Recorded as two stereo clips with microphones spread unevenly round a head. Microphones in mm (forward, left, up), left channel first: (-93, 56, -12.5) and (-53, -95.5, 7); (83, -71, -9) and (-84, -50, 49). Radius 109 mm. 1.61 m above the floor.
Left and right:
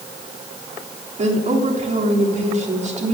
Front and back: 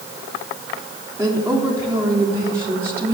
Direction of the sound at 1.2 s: 115° right.